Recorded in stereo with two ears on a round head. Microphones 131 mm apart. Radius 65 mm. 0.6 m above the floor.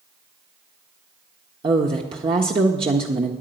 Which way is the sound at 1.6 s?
35° right (ahead or behind).